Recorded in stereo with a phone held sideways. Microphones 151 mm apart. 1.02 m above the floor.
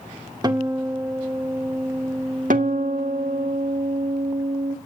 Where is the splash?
No splash in this recording.